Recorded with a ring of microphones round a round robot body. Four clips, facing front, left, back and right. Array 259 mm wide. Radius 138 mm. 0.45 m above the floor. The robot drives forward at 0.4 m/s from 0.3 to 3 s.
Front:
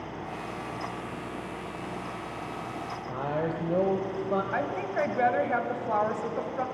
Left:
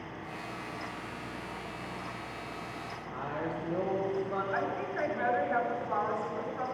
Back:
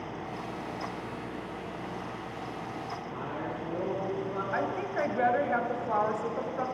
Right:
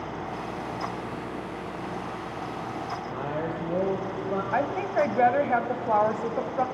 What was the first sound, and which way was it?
A woman speaking, 30° right.